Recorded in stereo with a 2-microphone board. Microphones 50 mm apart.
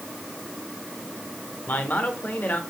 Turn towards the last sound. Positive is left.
turn(degrees=35)  # may be behind; listen again after turning